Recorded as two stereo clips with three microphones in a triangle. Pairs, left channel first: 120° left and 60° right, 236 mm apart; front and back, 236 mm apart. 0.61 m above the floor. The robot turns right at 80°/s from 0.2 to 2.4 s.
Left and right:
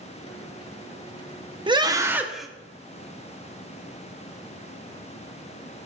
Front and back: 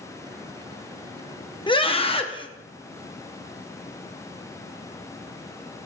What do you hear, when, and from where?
1.7 s a scream: 30° right, 0.8 m; by 2.5 s 30° left, 0.8 m